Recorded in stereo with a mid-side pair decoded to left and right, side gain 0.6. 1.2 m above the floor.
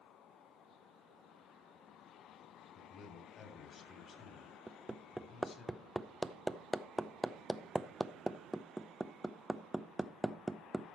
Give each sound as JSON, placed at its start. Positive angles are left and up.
{"t": 2.8, "sound": "a man speaking", "azimuth_deg": 40, "distance_m": 3.5}
{"t": 4.7, "sound": "hammering", "azimuth_deg": -10, "distance_m": 0.8}